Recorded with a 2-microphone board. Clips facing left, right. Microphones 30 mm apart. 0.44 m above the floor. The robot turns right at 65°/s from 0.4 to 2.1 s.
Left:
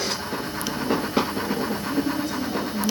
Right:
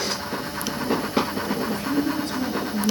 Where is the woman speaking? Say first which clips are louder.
Right 1 dB; 75° right (ahead or behind), 5 m; by 2.9 s 55° right (ahead or behind), 5 m.